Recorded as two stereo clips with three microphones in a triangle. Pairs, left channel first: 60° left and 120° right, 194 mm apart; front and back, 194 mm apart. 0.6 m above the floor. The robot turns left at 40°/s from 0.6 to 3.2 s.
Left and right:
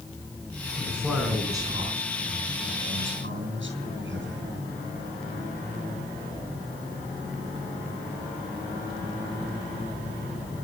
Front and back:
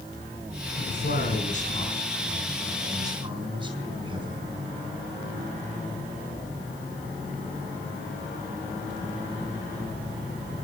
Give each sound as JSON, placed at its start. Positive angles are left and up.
{"t": 0.8, "sound": "a man speaking", "azimuth_deg": -25, "distance_m": 4.5}